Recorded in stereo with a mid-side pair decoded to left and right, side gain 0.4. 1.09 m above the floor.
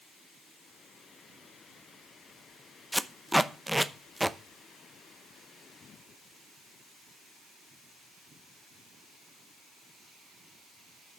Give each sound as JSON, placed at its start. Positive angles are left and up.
{"t": 2.9, "sound": "tape being pulled", "azimuth_deg": -5, "distance_m": 0.7}